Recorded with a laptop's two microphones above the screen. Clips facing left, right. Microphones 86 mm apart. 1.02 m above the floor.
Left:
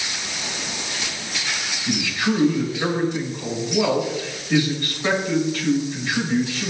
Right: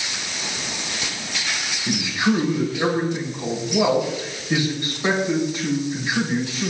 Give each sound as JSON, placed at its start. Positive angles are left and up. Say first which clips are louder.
{"t": 1.9, "sound": "a man speaking", "louder": "right 2 dB", "side_deg": -20, "distance_m": 9.0}